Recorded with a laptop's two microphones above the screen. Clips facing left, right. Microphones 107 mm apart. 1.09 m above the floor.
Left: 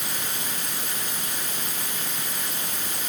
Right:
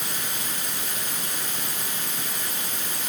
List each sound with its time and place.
Only background noise.